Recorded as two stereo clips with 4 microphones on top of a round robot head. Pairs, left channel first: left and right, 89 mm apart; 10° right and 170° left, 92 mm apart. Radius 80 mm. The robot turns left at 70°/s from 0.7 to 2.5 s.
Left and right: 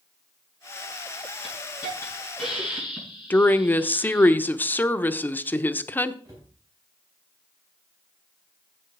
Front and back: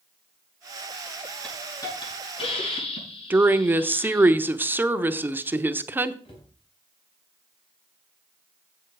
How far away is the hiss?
About 6.5 m.